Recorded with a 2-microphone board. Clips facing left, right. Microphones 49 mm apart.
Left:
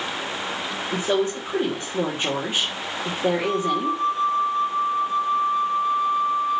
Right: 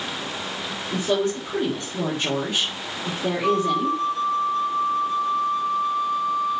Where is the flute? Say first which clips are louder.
Right 2 dB; 10° left (ahead or behind), 3 m.